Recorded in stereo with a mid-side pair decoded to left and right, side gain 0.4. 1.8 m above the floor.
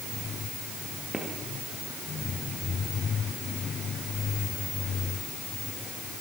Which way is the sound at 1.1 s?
5° right.